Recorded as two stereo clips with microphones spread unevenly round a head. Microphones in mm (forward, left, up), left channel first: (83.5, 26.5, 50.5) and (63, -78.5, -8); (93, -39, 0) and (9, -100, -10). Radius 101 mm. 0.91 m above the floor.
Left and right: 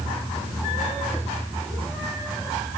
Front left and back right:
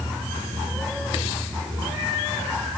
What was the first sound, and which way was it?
Only background noise.